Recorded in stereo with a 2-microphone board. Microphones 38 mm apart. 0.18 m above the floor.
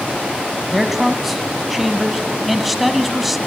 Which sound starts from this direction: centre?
A man speaking, at 0.7 s.